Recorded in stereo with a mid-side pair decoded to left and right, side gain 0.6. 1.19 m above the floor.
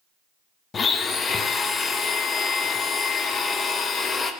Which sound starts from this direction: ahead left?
A blender, at 0.7 s.